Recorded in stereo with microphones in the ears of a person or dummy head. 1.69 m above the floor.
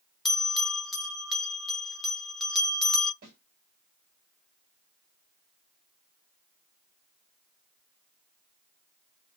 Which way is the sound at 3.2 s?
45° right (ahead or behind).